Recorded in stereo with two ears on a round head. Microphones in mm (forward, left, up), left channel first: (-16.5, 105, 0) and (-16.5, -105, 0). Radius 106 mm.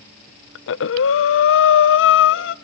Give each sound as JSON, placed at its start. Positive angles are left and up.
{"t": 0.6, "sound": "breathing", "side_deg": 55, "distance_m": 0.6}